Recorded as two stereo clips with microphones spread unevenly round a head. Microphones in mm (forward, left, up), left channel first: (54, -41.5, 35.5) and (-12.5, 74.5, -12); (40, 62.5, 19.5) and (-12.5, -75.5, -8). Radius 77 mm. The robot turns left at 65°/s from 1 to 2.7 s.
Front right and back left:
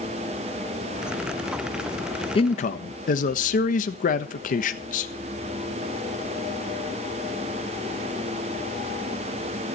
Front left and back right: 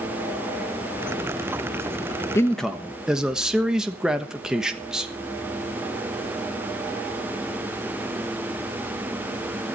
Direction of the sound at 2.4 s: 5° right.